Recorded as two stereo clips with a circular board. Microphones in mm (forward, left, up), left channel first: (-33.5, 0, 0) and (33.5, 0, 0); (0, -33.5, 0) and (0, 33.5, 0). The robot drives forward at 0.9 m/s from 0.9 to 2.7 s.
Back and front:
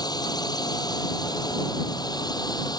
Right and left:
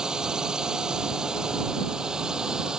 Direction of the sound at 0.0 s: 170° left.